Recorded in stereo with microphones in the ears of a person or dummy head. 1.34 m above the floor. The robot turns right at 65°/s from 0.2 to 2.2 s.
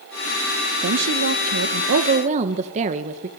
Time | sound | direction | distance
0.8 | a woman speaking | 130° right | 1.6 m